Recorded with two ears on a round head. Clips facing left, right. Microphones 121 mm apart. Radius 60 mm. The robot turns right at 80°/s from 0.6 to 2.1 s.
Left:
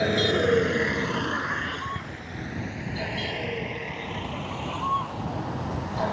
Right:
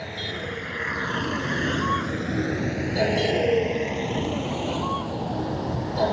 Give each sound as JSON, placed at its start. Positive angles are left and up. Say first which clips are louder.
{"t": 0.0, "sound": "a vehicle", "louder": "left 11 dB", "side_deg": 80}